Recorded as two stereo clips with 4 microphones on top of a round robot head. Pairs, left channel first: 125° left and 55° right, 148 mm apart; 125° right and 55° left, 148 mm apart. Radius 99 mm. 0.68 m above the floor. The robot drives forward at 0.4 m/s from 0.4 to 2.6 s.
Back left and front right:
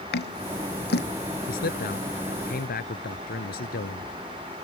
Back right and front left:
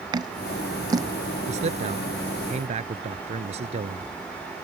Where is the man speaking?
100° left.